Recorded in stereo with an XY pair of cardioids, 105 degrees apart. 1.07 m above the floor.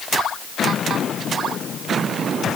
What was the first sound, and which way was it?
Only background noise.